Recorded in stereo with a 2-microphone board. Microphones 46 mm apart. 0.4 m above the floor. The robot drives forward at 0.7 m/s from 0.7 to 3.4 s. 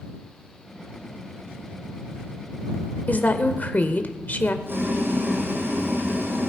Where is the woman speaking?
40° left (ahead or behind), 1.2 m.